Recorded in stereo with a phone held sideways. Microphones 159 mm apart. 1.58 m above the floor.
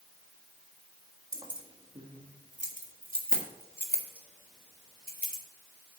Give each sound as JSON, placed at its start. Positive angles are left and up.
{"t": 1.3, "sound": "keys jangling", "side_deg": -25, "distance_m": 1.5}